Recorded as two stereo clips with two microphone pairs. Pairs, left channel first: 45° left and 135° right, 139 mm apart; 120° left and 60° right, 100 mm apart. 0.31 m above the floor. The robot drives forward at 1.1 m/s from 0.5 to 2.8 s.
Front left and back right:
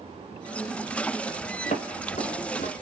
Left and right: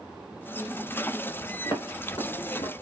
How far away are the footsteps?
About 7 m.